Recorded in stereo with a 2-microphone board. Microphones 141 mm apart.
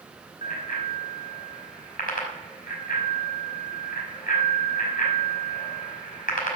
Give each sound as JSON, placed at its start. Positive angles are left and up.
{"t": 0.4, "sound": "a bicycle bell", "side_deg": 80, "distance_m": 5.0}